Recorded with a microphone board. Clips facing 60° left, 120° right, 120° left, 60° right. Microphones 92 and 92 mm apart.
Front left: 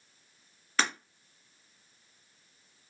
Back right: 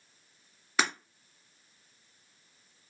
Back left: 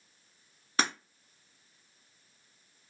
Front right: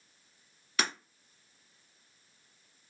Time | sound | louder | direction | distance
0.8 | breaking glass | back right 1 dB, back left 3 dB | 160° left | 1.3 m